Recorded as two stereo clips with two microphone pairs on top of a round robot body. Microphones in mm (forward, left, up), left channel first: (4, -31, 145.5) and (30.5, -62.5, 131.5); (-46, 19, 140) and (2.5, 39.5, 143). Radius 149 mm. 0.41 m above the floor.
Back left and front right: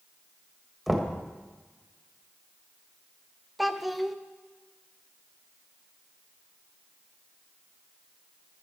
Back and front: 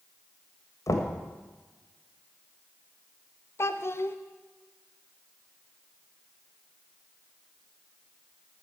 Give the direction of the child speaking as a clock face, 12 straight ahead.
4 o'clock.